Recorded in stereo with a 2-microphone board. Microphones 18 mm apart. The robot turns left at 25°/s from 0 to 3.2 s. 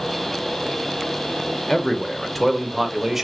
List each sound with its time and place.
1.7 s a man speaking: 30° left, 0.8 m; by 3.2 s 10° right, 0.8 m